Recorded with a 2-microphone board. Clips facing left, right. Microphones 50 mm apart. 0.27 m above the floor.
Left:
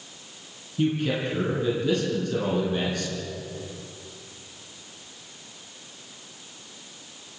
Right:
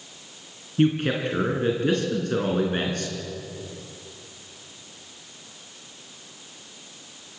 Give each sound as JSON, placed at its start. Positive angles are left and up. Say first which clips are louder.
{"t": 0.8, "sound": "a man speaking", "louder": "right 3 dB", "side_deg": -50, "distance_m": 3.5}